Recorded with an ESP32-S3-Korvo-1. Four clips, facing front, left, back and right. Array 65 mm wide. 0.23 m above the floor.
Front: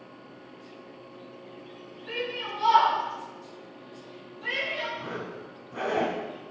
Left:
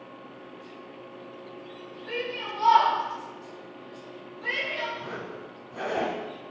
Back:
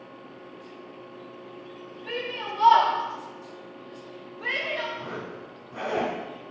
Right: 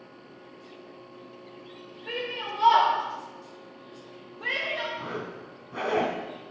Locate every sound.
2.1 s a shout: 130° right, 5 m
5.0 s a zipper: 90° right, 2 m